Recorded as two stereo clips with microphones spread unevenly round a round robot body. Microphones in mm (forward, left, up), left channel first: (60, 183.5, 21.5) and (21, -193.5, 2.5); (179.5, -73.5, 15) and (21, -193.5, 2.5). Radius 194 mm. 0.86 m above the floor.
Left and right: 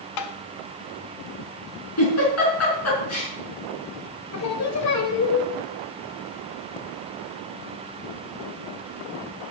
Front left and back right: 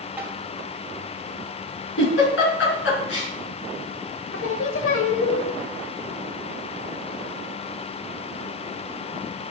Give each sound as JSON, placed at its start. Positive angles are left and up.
{"t": 0.2, "sound": "tapping", "azimuth_deg": 130, "distance_m": 0.7}
{"t": 2.0, "sound": "a giggle", "azimuth_deg": 35, "distance_m": 4.5}
{"t": 4.3, "sound": "singing", "azimuth_deg": 40, "distance_m": 1.6}